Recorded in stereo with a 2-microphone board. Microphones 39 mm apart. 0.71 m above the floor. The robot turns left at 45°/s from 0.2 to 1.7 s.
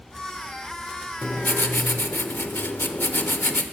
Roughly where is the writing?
Left.